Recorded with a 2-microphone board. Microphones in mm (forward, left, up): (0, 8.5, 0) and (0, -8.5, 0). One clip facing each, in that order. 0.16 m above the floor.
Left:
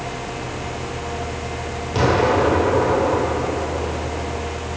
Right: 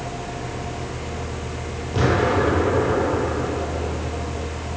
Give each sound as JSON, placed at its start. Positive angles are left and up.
{"t": 1.9, "sound": "an explosion", "side_deg": 35, "distance_m": 2.5}